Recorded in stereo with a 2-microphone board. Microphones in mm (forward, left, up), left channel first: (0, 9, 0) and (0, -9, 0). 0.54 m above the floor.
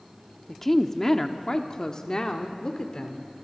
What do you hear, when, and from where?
0.5 s a woman speaking: 15° left (ahead or behind), 1.1 m; by 3.3 s 40° left (ahead or behind), 1.8 m